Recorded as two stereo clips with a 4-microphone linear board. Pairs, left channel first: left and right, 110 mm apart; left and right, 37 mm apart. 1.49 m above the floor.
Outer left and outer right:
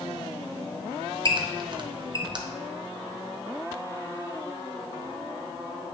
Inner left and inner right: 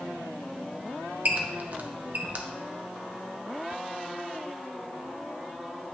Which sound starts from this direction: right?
A squeak, at 1.2 s.